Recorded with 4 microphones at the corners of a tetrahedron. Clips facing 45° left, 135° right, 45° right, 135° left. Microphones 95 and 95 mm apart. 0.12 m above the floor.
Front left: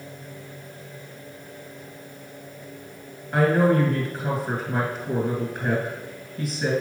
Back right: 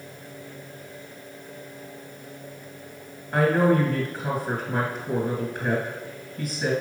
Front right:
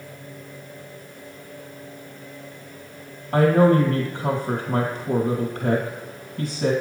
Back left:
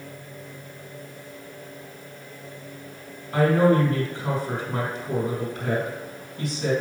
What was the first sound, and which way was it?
A woman speaking, 45° right.